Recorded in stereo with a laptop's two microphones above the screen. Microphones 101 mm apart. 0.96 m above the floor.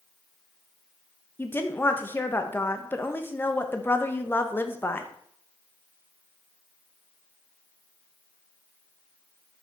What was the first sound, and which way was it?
A woman speaking, 20° left (ahead or behind).